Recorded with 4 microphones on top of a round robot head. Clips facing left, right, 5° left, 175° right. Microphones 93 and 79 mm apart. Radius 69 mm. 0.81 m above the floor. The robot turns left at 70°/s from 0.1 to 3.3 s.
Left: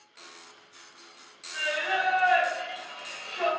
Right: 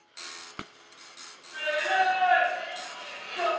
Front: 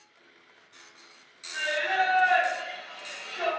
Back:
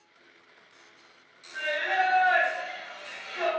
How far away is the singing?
About 1.4 m.